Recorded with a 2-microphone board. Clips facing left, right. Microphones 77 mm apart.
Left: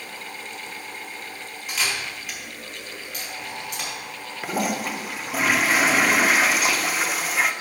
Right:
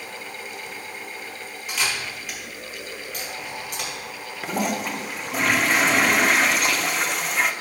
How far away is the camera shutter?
About 4.5 m.